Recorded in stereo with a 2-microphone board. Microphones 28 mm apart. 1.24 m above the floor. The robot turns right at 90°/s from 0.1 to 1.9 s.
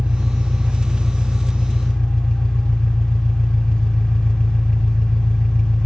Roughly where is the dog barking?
No dog barking in this recording.